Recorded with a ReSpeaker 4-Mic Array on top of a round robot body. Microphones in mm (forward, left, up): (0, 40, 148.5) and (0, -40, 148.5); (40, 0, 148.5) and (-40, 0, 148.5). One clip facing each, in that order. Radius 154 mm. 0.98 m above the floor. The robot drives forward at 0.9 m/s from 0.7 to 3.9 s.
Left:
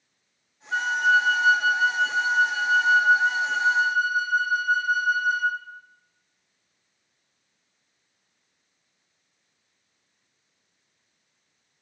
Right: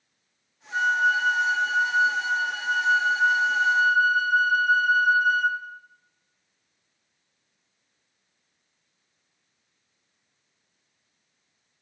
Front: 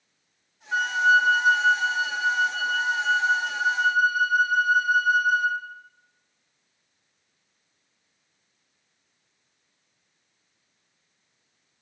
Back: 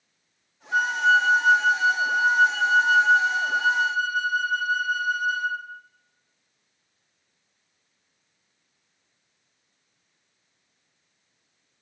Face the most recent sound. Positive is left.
turn(degrees=155)